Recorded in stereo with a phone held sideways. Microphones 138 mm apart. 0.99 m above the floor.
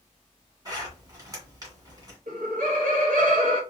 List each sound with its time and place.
0.7 s a zipper: 30° right (ahead or behind), 1.8 m
2.3 s laughter: 70° right (ahead or behind), 0.9 m